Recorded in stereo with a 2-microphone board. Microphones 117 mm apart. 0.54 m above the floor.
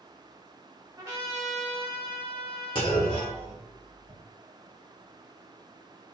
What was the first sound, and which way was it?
A trumpet, 30° right (ahead or behind).